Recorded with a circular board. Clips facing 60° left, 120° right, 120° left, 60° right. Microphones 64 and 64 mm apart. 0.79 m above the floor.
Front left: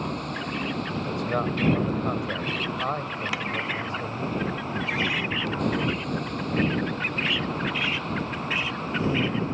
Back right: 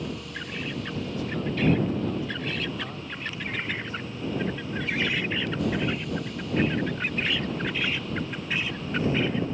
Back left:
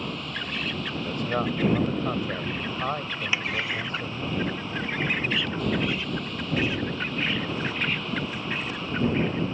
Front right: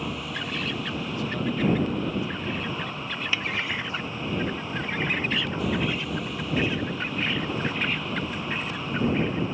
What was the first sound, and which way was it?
A vehicle, 25° left.